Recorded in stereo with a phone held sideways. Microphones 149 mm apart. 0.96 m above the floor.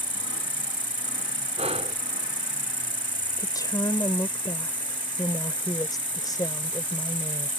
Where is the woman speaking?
25° left (ahead or behind).